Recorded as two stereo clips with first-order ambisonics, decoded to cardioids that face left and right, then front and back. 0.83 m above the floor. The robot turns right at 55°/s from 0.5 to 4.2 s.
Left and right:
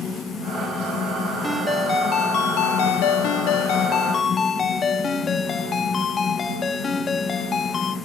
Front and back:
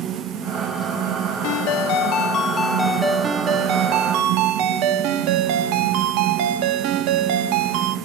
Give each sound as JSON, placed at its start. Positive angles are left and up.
{"t": 1.4, "sound": "a ringtone", "azimuth_deg": 5, "distance_m": 0.9}